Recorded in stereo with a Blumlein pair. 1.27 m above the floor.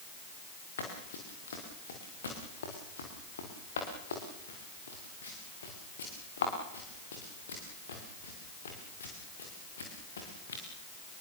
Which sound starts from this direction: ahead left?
Running footsteps, at 0.8 s.